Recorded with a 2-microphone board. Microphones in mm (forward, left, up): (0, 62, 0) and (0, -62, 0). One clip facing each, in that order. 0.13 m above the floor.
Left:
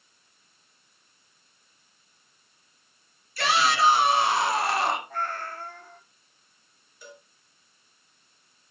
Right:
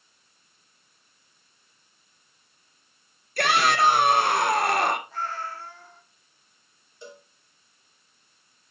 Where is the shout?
60° right (ahead or behind), 2.0 m.